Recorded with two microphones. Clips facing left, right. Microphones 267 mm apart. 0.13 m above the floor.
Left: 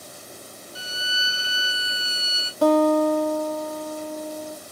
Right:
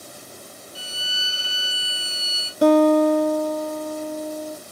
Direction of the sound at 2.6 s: 20° right (ahead or behind).